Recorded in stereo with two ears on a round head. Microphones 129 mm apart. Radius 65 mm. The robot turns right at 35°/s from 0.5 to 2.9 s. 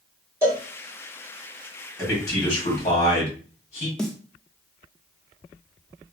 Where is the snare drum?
5° left (ahead or behind), 0.7 m.